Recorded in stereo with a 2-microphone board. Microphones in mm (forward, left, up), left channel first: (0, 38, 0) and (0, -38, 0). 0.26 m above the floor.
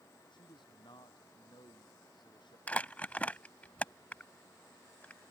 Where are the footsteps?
I don't hear footsteps.